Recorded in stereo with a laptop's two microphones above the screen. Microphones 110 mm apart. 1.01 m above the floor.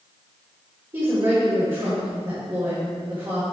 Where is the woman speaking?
45° right (ahead or behind), 2.5 m.